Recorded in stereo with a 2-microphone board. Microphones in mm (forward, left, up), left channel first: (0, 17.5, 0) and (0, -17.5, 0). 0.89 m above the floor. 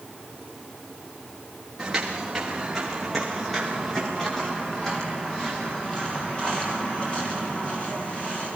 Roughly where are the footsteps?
Centre.